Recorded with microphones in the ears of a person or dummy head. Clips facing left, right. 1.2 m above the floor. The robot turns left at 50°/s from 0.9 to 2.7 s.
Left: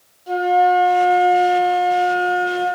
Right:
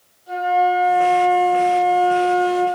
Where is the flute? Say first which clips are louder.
Left 3 dB; 75° left, 1.6 m; by 2.7 s 15° right, 1.6 m.